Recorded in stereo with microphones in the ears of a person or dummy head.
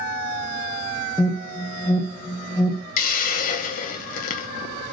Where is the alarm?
10° left (ahead or behind), 0.8 m.